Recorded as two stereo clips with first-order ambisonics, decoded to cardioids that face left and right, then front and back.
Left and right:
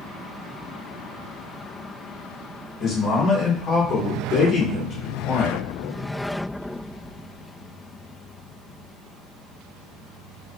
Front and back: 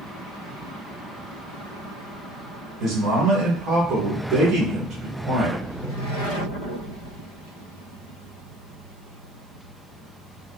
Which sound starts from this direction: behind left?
A man speaking, at 2.8 s.